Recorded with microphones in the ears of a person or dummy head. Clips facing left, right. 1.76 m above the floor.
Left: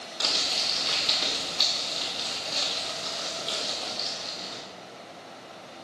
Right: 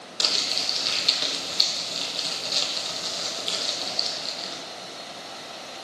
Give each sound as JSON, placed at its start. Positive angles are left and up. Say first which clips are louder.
{"t": 0.2, "sound": "crumpling", "louder": "right 1 dB", "side_deg": -30, "distance_m": 1.2}